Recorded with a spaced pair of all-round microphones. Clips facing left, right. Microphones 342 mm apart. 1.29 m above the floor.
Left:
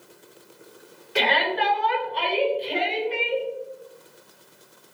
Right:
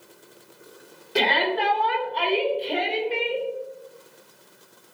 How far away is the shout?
About 3 m.